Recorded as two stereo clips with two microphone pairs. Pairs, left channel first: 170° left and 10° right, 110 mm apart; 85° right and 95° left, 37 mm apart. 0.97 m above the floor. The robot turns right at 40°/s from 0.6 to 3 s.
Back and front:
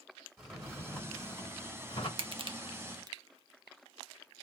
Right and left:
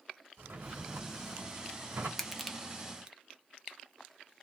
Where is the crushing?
5° right, 0.5 m; by 3.2 s 30° left, 0.5 m.